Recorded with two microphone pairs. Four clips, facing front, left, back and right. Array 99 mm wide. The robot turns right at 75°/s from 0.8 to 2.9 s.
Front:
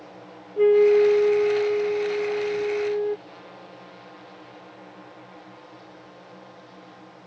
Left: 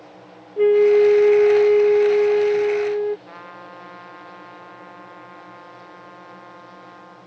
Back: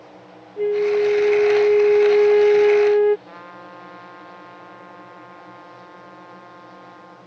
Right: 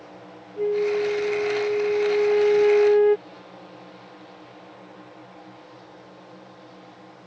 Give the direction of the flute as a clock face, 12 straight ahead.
10 o'clock.